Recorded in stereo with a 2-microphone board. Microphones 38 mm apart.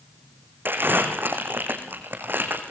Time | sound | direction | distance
0.7 | crumpling | 65° right (ahead or behind) | 3.5 m